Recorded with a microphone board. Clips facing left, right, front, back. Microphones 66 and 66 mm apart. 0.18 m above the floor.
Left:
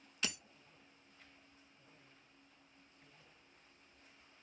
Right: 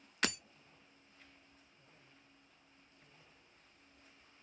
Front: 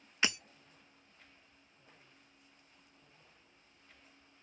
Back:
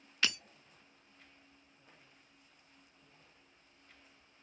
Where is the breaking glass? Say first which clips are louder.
Right 6 dB, front 1 dB; 70° right, 0.5 m.